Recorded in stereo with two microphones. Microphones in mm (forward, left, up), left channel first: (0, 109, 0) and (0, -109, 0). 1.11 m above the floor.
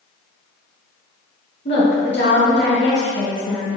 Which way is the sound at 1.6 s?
55° left (ahead or behind).